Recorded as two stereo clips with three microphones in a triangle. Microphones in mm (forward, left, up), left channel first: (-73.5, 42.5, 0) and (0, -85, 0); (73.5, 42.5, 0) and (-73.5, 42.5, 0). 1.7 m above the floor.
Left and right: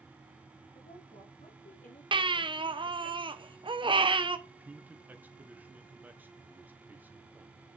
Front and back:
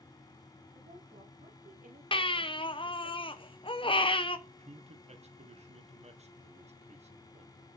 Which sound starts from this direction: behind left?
A woman speaking, at 0.8 s.